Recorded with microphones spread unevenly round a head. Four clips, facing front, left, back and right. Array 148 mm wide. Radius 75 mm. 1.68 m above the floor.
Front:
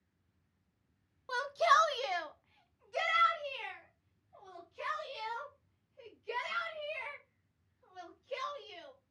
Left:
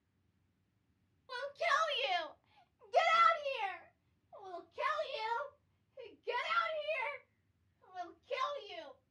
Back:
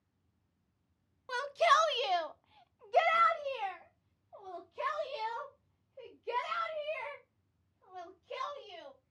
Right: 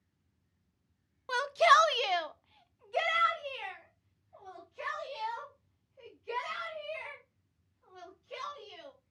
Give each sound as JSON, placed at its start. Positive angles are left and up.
{"t": 1.3, "sound": "a shout", "azimuth_deg": -80, "distance_m": 0.9}